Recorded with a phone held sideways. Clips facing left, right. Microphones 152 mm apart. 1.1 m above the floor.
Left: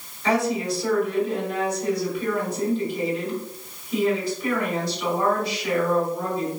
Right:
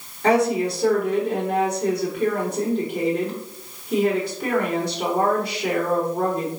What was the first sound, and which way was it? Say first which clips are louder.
A woman speaking: right 4 dB; 65° right (ahead or behind).